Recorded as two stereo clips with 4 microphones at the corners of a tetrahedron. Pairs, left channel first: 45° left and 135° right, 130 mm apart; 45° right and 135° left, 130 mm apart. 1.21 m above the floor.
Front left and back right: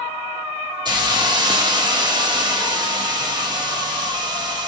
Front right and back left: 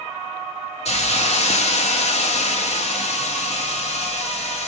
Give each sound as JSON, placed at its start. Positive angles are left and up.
{"t": 0.8, "sound": "a hiss", "azimuth_deg": -80, "distance_m": 1.8}